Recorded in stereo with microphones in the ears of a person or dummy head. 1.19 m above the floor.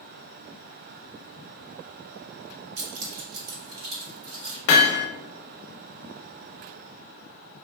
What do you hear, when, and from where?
2.8 s keys jangling: 70° right (ahead or behind), 1.1 m; by 4.6 s 85° right, 3.5 m
4.7 s hammering: 70° left (ahead or behind), 0.5 m